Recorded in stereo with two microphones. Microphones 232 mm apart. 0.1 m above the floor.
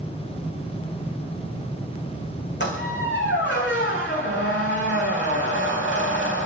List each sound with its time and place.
2.6 s a squeak: 55° left (ahead or behind), 5 m